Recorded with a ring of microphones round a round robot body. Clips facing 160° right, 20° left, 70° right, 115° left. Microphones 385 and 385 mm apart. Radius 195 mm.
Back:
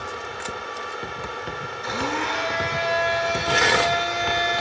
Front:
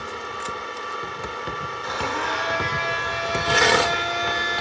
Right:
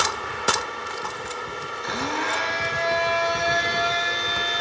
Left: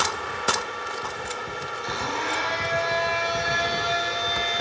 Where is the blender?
100° right, 4.5 m.